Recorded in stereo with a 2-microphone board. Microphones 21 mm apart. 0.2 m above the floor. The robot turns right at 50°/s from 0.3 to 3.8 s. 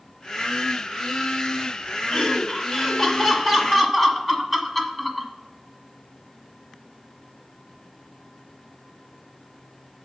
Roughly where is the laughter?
Left.